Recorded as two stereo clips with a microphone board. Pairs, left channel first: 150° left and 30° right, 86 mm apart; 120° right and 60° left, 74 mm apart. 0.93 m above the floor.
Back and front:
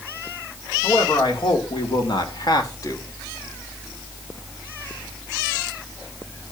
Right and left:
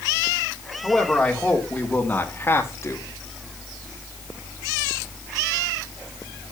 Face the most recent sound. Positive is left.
turn(degrees=-165)